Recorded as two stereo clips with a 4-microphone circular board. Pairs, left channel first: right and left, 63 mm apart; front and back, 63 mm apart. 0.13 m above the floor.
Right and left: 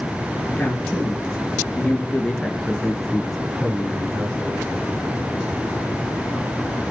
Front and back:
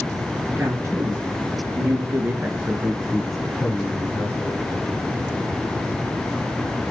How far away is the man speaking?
About 3 m.